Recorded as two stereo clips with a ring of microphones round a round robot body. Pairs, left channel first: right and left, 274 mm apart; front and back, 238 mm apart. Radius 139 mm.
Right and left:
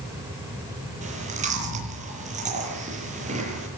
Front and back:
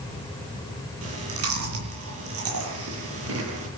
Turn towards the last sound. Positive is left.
turn(degrees=155)